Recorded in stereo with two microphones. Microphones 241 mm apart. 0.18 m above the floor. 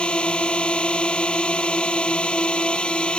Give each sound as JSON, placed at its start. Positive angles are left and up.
{"t": 0.0, "sound": "a drone", "side_deg": 5}